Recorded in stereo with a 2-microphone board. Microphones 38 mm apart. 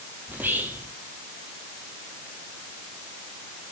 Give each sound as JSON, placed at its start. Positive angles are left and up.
{"t": 0.3, "sound": "whispering", "side_deg": -60, "distance_m": 2.5}